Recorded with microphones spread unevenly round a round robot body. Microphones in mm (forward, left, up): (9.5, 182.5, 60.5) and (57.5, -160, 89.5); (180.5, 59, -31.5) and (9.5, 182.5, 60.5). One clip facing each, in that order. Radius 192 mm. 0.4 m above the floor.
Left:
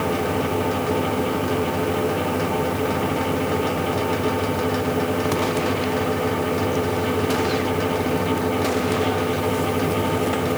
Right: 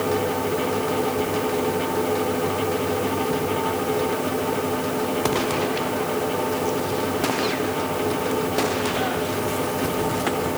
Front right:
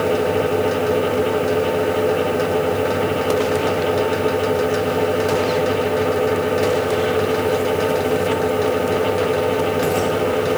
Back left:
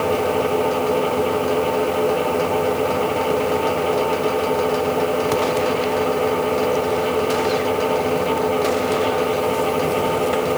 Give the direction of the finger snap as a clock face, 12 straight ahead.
I don't hear a finger snap.